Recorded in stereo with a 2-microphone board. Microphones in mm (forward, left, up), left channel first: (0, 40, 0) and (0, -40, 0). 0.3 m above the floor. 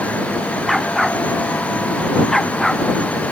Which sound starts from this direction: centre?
A dog barking, at 0.7 s.